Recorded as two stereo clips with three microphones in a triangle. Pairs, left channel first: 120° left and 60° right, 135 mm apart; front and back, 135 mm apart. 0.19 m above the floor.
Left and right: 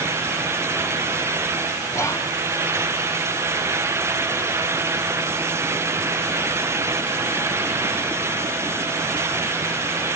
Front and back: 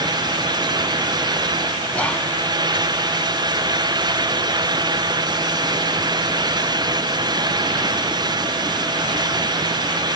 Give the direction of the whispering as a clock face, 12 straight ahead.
10 o'clock.